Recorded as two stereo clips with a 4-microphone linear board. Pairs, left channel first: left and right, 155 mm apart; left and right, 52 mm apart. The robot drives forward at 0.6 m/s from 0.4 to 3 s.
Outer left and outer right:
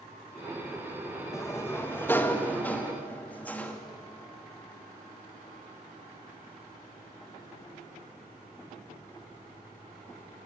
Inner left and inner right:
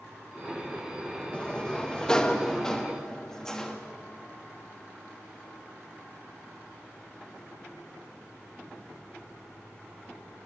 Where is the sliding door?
20° left (ahead or behind), 1.2 m; by 3.8 s 10° left (ahead or behind), 2 m.